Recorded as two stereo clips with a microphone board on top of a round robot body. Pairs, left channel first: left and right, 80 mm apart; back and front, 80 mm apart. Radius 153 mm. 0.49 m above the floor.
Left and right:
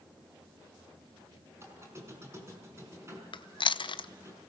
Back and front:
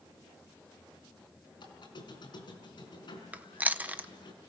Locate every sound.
1.6 s a squeak: 150° right, 4.5 m
3.3 s chewing: 70° left, 0.8 m